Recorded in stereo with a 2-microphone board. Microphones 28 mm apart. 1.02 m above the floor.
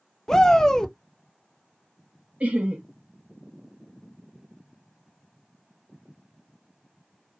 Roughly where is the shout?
Centre.